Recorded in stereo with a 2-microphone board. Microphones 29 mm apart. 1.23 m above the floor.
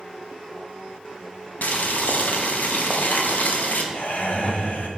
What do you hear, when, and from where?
1.6 s boiling: 65° left (ahead or behind), 0.7 m
3.9 s laughter: 55° left (ahead or behind), 1.0 m